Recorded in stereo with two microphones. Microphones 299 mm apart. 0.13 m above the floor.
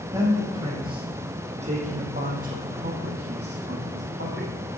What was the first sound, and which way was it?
A man speaking, 10° right (ahead or behind).